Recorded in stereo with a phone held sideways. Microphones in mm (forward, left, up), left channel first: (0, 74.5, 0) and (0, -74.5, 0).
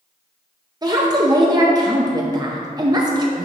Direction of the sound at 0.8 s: 25° right (ahead or behind).